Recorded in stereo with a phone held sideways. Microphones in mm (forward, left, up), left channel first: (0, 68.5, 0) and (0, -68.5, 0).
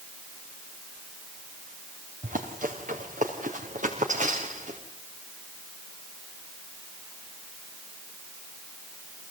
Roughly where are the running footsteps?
Right.